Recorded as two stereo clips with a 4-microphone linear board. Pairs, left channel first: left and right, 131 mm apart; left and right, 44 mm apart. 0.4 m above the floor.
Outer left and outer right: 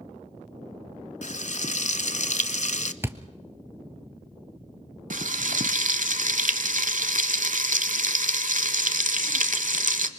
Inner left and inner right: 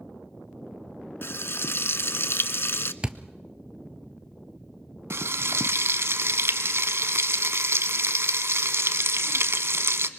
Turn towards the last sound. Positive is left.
turn(degrees=-85)